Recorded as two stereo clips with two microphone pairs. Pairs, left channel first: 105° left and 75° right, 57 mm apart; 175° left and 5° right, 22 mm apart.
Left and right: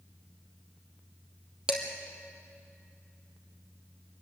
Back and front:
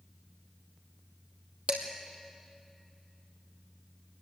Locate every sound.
1.7 s dishes clattering: 5° right, 2.5 m